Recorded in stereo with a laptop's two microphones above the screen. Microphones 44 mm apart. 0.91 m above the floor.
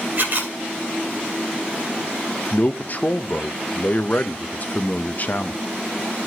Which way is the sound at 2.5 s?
40° left (ahead or behind).